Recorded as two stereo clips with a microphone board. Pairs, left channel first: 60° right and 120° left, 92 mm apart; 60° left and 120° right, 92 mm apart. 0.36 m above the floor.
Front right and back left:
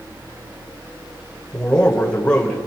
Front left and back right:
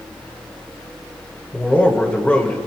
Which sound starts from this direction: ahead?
A man speaking, at 1.5 s.